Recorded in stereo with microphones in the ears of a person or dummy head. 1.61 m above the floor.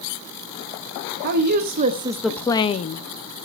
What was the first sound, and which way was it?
A woman speaking, 55° right (ahead or behind).